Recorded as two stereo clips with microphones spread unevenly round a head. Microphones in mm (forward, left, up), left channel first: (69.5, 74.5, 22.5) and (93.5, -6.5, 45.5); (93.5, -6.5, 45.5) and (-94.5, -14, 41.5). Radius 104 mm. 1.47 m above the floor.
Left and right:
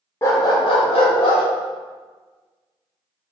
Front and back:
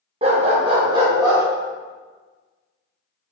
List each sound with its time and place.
0.2 s a dog barking: straight behind, 0.9 m; by 1.4 s 110° left, 1.8 m